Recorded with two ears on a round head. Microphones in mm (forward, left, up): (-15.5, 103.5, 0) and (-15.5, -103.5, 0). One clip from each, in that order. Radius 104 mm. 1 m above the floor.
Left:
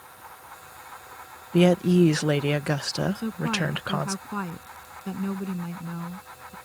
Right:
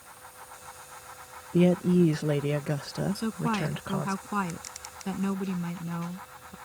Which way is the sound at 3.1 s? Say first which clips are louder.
Left 2 dB; 20° right (ahead or behind).